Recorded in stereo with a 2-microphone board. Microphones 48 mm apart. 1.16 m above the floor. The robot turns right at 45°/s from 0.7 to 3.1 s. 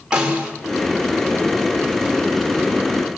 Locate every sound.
0.1 s a snare drum: 20° right (ahead or behind), 4 m